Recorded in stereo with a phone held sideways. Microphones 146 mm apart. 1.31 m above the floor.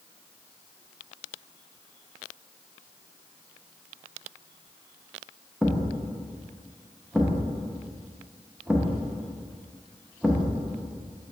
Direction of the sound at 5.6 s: Centre (ahead or behind).